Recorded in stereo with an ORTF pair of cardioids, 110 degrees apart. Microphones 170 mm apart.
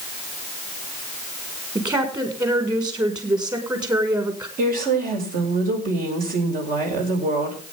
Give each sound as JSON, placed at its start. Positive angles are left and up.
{"t": 1.8, "sound": "a woman speaking", "azimuth_deg": -20, "distance_m": 5.0}
{"t": 4.6, "sound": "a woman speaking", "azimuth_deg": -55, "distance_m": 6.0}